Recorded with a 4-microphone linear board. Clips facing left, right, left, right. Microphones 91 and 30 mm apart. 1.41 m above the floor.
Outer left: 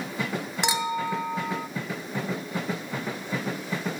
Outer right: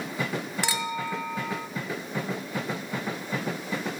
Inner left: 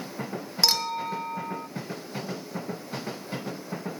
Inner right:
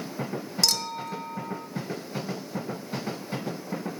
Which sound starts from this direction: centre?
A clink, at 0.6 s.